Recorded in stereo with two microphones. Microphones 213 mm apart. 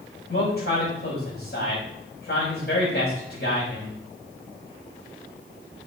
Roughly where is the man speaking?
Left.